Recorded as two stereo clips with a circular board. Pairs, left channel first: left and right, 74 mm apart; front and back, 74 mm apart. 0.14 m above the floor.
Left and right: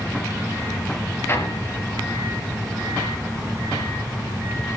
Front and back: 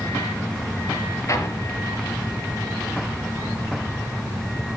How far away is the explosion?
About 3.5 m.